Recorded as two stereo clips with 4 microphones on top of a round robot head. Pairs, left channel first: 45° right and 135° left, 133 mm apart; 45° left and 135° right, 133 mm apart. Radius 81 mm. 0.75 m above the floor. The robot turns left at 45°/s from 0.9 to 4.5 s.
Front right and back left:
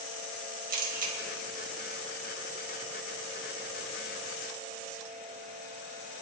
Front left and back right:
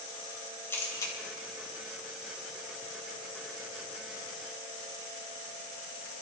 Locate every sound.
0.7 s a camera shutter: 120° left, 2 m; by 1.1 s 105° left, 2 m